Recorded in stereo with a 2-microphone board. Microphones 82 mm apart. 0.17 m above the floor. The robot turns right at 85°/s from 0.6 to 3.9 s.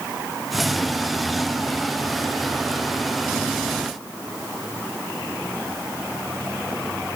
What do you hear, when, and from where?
Only background noise.